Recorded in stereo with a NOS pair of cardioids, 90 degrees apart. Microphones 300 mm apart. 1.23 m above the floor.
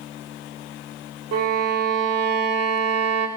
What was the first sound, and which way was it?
A violin, 55° right.